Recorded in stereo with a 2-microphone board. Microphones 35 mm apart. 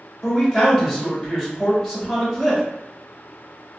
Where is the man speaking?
5° right (ahead or behind), 1.5 m.